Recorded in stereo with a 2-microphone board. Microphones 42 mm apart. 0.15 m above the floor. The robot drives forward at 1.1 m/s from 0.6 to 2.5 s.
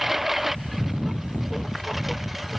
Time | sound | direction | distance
0.0 | a lawn mower | 5° right (ahead or behind) | ?